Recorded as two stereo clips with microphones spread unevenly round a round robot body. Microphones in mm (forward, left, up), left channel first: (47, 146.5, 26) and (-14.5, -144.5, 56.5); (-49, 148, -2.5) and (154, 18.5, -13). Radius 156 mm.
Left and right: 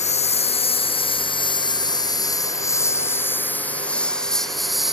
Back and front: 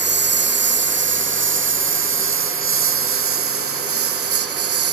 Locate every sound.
0.0 s a lawn mower: 10° left; by 4.9 s 15° right